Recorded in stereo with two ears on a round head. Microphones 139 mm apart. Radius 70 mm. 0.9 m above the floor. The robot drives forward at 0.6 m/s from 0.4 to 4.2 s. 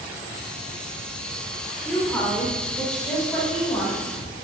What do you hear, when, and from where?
1.9 s a woman speaking: 10° left (ahead or behind), 3 m; by 4.0 s 5° left (ahead or behind), 4.5 m